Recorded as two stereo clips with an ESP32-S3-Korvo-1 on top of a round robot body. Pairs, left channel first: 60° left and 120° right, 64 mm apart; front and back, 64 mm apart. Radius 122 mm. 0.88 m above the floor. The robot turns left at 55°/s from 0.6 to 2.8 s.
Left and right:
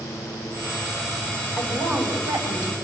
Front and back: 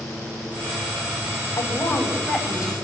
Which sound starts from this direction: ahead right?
A woman speaking, at 1.6 s.